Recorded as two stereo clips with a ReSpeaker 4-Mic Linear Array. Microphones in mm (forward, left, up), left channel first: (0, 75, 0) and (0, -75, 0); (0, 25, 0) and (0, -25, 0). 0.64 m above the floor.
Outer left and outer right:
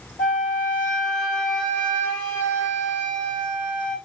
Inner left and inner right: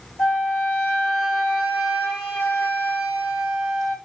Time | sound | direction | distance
0.2 | a flute | 10° left (ahead or behind) | 3 m